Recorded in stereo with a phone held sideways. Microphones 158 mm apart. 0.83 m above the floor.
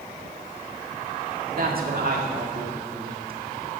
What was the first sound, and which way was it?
A man speaking, 65° right (ahead or behind).